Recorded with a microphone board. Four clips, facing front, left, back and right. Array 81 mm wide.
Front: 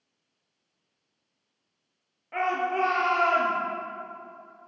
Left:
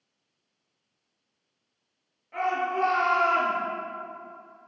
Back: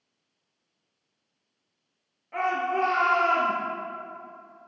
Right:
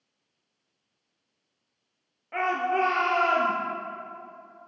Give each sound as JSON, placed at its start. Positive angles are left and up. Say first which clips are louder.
{"t": 2.3, "sound": "a shout", "louder": "right 1 dB, even", "azimuth_deg": -65, "distance_m": 1.6}